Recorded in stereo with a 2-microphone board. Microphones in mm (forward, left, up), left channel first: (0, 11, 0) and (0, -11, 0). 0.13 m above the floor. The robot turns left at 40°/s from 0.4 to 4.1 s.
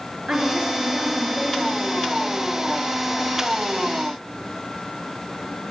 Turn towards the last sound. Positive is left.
turn(degrees=110)